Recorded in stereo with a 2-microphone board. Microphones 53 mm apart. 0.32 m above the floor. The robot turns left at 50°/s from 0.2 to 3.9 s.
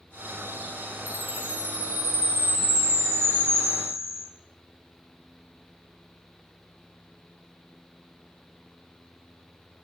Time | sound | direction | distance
1.1 | a chime | 140° left | 1.4 m